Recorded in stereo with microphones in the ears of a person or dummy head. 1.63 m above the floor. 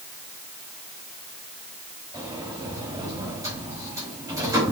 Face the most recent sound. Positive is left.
turn(degrees=-20)  # may be behind; listen again after turning